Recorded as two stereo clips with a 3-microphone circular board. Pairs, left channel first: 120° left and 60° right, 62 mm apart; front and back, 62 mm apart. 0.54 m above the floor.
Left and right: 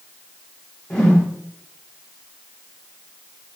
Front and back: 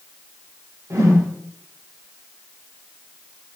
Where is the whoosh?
165° right, 0.7 m.